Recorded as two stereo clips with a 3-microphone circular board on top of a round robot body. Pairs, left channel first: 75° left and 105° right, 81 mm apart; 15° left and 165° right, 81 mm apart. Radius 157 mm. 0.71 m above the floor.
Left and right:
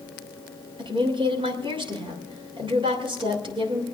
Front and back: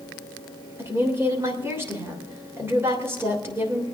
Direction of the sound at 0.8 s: 105° right.